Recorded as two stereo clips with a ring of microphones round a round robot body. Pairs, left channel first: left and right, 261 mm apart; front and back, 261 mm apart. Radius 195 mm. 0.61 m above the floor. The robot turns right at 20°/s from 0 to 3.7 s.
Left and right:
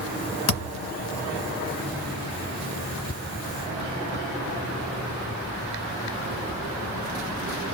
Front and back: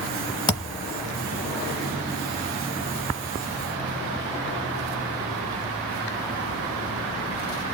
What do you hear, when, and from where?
0.5 s a thud: 75° left, 0.7 m; by 0.9 s 80° left, 0.7 m